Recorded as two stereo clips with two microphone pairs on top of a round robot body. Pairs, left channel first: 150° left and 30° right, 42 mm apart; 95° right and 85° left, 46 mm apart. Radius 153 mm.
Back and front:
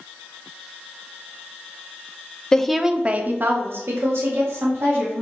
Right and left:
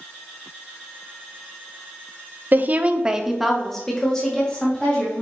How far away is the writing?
I don't hear writing.